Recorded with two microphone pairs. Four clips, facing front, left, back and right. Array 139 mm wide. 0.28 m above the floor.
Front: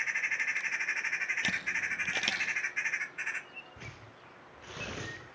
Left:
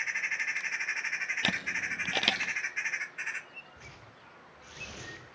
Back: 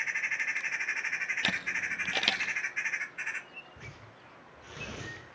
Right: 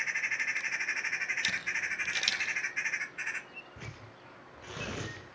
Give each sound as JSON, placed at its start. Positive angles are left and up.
{"t": 1.4, "sound": "a camera shutter", "azimuth_deg": 110, "distance_m": 1.5}
{"t": 3.8, "sound": "tearing paper", "azimuth_deg": -55, "distance_m": 5.5}